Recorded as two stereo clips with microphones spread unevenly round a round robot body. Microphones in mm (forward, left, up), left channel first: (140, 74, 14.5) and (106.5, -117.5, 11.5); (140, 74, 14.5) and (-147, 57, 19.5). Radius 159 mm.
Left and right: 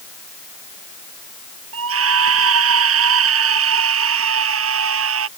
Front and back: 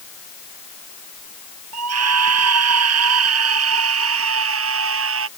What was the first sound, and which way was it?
A scream, 130° right.